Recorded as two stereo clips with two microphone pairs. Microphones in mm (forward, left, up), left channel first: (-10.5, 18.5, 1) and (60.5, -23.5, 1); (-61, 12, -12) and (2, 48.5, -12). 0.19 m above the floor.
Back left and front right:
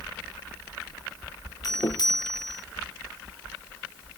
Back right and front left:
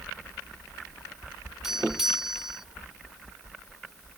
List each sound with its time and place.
1.6 s a doorbell: 115° left